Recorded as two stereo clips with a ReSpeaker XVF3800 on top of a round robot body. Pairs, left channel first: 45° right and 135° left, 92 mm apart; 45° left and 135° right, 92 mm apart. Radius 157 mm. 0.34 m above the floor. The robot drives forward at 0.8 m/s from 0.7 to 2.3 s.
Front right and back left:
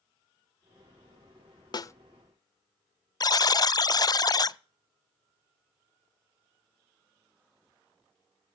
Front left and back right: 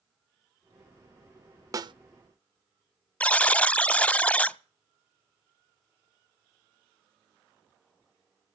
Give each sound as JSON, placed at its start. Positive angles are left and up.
{"t": 1.7, "sound": "a snare drum", "azimuth_deg": -85, "distance_m": 0.5}
{"t": 3.2, "sound": "a buzzer", "azimuth_deg": -25, "distance_m": 0.6}